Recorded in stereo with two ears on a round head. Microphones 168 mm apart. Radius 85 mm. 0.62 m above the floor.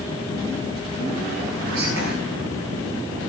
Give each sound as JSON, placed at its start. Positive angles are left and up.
{"t": 1.6, "sound": "whispering", "side_deg": -80, "distance_m": 5.5}